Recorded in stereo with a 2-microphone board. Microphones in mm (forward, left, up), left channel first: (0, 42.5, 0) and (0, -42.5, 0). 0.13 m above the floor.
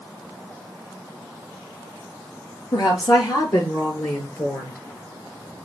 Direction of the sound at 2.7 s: 55° left (ahead or behind).